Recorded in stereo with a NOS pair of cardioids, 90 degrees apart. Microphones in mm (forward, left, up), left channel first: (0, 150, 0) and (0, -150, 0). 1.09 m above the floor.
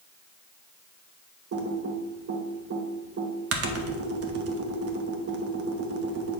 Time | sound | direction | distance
1.5 | typing on a keyboard | 55° right | 1.1 m